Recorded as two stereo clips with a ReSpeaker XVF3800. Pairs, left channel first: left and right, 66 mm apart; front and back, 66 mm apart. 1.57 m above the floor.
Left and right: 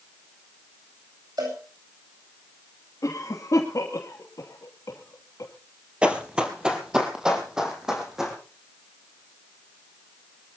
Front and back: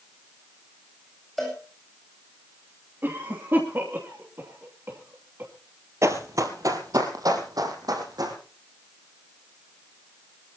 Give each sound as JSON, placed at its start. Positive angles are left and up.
{"t": 1.4, "sound": "a cowbell", "azimuth_deg": -90, "distance_m": 8.5}
{"t": 3.0, "sound": "a cough", "azimuth_deg": 125, "distance_m": 3.0}
{"t": 6.0, "sound": "running footsteps", "azimuth_deg": -160, "distance_m": 2.5}